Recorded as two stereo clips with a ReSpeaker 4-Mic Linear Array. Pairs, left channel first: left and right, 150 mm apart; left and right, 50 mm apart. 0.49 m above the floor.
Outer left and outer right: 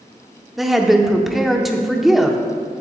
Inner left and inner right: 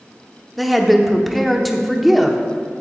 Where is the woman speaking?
Centre (ahead or behind), 0.7 m.